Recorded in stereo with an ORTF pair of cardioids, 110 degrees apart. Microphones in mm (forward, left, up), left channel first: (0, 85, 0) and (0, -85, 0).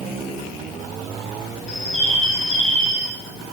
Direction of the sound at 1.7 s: Straight ahead.